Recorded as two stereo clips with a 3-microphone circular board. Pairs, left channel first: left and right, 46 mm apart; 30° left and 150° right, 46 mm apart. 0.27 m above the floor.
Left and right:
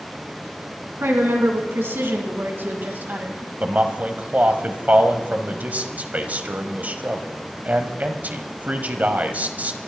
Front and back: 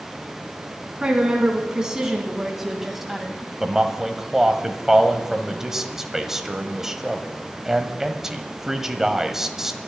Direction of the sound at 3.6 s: 75° right.